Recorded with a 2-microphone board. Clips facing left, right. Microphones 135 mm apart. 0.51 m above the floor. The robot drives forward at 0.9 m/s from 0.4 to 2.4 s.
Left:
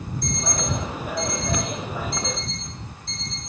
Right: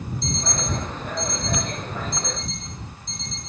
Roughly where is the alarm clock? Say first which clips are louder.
Left 2 dB; right.